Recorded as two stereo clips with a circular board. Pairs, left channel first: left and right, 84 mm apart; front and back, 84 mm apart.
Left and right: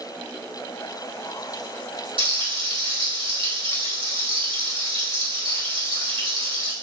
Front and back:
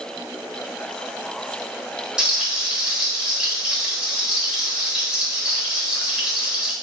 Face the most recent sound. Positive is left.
turn(degrees=-100)